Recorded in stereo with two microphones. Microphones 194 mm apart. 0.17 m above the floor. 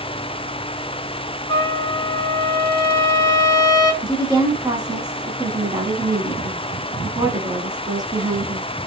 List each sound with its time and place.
1.5 s a trumpet: 20° left (ahead or behind), 0.7 m
4.0 s a woman speaking: 20° right (ahead or behind), 1.0 m